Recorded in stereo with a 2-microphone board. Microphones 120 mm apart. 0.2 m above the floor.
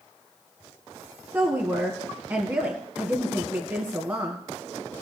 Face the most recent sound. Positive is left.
turn(degrees=-20)  # may be behind; listen again after turning